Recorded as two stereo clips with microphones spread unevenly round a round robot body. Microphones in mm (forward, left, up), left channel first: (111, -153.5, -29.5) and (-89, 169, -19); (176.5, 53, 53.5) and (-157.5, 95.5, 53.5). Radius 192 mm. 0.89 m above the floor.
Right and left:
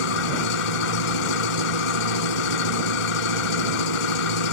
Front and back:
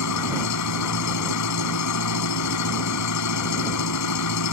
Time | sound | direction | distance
0.0 | an engine running | 55° right | ?